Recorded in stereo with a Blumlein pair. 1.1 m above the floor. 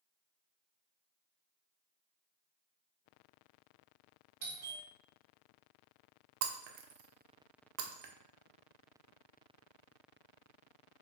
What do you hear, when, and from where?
4.4 s a doorbell: 50° right, 1.4 m
6.4 s breaking glass: 45° right, 0.6 m